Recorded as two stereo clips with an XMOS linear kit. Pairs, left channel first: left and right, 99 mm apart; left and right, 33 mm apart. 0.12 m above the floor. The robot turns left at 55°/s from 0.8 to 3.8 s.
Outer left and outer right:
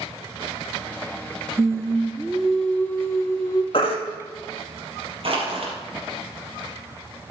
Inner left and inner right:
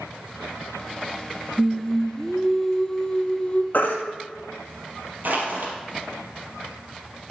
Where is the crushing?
60° right (ahead or behind), 3.5 m.